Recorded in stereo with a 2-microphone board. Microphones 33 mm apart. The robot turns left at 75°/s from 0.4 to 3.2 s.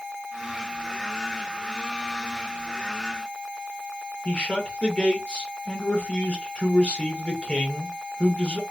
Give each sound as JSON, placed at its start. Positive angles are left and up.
{"t": 4.2, "sound": "a man speaking", "side_deg": 30, "distance_m": 2.0}